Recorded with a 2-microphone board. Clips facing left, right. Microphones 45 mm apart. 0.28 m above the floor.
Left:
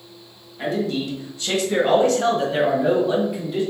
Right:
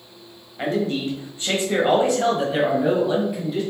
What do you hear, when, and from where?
0.6 s a man speaking: 35° right (ahead or behind), 1.3 m; by 3.6 s 5° left (ahead or behind), 1.8 m